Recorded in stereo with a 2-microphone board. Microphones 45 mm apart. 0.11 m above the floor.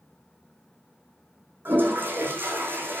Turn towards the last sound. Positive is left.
turn(degrees=-45)  # may be behind; listen again after turning